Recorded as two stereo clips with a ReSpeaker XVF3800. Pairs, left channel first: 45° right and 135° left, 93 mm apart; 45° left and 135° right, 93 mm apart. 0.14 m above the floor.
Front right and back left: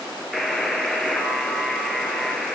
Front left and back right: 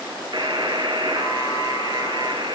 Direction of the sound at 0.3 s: 135° right.